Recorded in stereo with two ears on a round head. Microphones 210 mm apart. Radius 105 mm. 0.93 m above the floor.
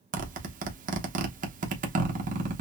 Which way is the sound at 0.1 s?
35° right (ahead or behind).